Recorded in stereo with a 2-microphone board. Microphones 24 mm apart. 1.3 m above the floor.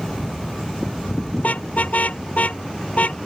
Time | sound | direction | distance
1.4 | a car horn | 70° left (ahead or behind) | ?